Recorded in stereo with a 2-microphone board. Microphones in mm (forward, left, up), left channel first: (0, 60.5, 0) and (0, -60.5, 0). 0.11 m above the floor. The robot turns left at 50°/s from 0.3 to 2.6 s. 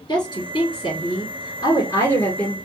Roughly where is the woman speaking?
Behind left.